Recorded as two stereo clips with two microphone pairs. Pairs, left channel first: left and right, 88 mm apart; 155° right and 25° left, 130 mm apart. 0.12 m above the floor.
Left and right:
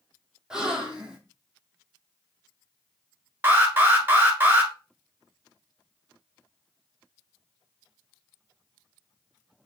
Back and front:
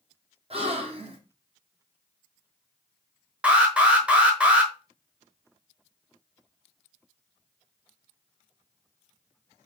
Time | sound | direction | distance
0.5 | a gasp | 10° right | 1.0 m
3.4 | an alarm | 50° right | 1.0 m